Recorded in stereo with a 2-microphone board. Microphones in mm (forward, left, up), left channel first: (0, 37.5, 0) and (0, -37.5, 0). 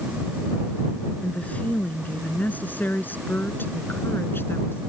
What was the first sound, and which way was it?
A woman speaking, 20° left (ahead or behind).